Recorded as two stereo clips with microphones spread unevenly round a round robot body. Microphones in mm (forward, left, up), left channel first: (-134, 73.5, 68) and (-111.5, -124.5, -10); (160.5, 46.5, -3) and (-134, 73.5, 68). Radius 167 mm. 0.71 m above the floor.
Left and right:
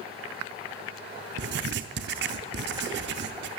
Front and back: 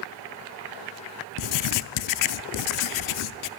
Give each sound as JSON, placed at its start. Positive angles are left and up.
{"t": 1.4, "sound": "writing", "azimuth_deg": -35, "distance_m": 0.5}